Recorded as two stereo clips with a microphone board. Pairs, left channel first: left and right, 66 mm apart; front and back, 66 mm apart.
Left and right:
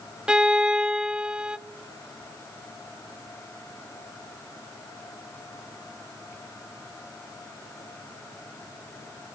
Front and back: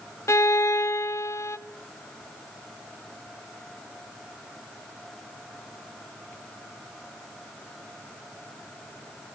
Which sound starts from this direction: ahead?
A violin, at 0.3 s.